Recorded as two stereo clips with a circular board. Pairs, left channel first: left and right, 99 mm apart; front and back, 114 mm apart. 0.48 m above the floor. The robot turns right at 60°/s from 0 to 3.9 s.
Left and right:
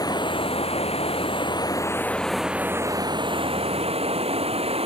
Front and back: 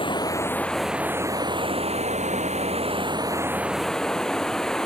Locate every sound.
0.0 s running water: 40° left; by 4.9 s 85° right